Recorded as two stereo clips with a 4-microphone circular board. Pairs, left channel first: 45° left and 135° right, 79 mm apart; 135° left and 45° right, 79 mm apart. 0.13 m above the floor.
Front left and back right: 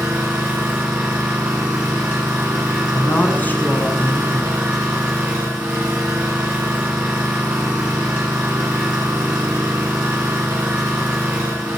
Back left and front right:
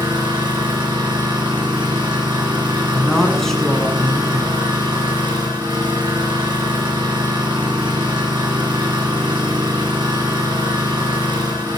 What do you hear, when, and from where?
0.0 s an engine running: 60° right, 3 m
2.9 s a woman speaking: 60° left, 1.1 m